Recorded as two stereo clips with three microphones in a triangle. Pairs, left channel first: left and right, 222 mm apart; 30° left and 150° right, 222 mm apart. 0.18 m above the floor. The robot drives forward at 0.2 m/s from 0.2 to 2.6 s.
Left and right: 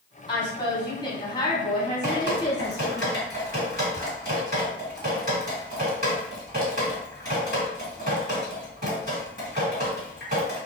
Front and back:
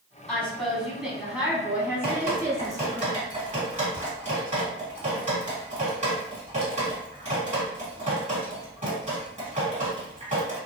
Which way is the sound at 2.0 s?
105° right.